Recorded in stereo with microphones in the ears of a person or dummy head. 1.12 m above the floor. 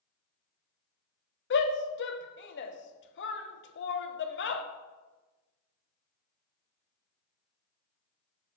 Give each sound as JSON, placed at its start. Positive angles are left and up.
{"t": 1.5, "sound": "a shout", "side_deg": 60, "distance_m": 0.7}